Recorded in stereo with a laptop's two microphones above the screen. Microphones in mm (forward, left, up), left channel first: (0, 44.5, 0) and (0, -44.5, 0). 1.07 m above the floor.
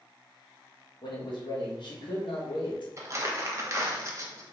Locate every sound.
1.0 s a man speaking: 60° left (ahead or behind), 1.2 m
3.0 s crumpling: 35° right (ahead or behind), 0.7 m